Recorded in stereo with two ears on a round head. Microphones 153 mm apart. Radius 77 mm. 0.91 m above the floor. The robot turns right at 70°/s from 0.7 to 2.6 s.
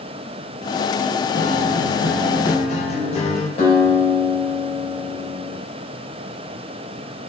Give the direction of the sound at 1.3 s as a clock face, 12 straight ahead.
10 o'clock.